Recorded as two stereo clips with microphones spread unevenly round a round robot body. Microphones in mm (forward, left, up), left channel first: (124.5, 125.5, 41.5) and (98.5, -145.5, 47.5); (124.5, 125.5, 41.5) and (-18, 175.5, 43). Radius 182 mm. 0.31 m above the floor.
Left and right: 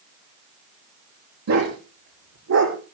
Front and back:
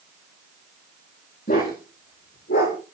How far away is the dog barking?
About 8 m.